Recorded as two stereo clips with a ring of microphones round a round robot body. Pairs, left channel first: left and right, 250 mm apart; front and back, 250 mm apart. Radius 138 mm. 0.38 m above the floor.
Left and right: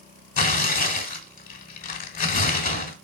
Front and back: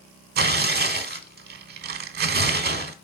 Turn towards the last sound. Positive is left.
turn(degrees=140)